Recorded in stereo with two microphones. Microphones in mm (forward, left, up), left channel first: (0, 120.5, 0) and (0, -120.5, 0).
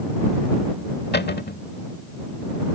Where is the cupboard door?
45° left (ahead or behind).